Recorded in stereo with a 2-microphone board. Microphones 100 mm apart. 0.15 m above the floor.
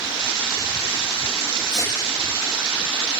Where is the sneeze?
50° left (ahead or behind), 4.5 m.